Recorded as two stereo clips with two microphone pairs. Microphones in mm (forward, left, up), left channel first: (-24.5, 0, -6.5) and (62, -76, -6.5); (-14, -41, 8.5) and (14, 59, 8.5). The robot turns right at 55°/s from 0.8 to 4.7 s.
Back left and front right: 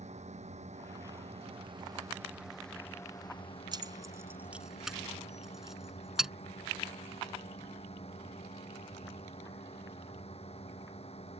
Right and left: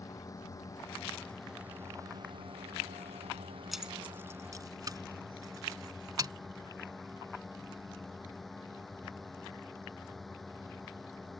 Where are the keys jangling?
15° right; by 6.3 s 40° left.